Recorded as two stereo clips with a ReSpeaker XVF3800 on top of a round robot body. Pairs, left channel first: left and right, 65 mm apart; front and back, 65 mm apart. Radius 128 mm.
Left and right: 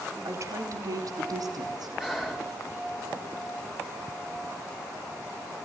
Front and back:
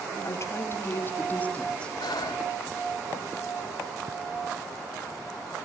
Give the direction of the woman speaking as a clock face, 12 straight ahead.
2 o'clock.